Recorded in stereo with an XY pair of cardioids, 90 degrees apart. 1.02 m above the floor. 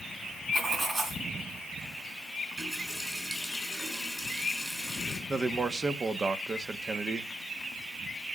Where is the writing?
35° right, 4 m.